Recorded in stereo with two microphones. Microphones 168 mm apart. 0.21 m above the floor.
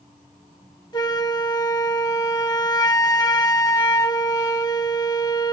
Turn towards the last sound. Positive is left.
turn(degrees=25)  # may be behind; listen again after turning